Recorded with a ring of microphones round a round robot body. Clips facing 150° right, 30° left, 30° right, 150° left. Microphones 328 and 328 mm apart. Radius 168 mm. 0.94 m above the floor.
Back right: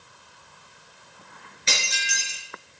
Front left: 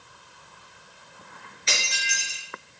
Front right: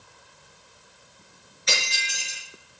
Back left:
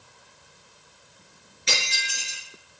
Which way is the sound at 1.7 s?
150° right.